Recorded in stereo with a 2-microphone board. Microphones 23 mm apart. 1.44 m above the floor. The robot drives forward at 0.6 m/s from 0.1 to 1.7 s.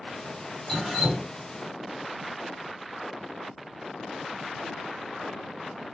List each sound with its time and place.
0.7 s dripping: centre (ahead or behind), 1.6 m